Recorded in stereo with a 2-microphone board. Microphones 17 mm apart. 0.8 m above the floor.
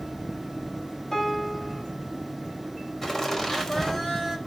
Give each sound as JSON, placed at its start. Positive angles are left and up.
{"t": 1.1, "sound": "a piano", "side_deg": 40, "distance_m": 3.0}
{"t": 3.0, "sound": "laughter", "side_deg": 25, "distance_m": 5.0}